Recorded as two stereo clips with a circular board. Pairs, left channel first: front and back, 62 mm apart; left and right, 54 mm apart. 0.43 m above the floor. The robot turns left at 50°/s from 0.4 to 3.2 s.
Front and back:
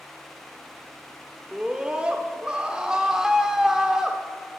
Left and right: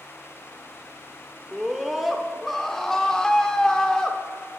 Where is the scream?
150° right, 0.7 m; by 4.2 s 130° left, 0.7 m.